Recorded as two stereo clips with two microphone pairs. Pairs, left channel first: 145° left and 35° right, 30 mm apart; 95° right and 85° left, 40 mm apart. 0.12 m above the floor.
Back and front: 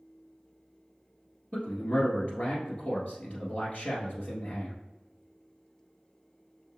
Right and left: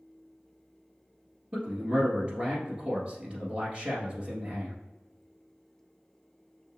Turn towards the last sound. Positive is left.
turn(degrees=140)